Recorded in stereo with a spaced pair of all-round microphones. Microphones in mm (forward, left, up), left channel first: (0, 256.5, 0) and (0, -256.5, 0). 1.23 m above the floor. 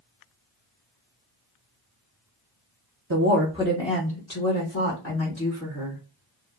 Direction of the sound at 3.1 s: 45° right (ahead or behind).